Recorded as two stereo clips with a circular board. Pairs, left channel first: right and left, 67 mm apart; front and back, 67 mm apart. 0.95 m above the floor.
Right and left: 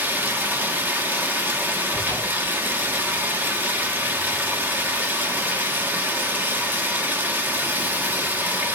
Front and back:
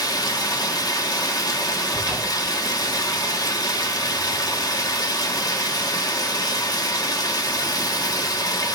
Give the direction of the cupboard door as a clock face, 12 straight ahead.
8 o'clock.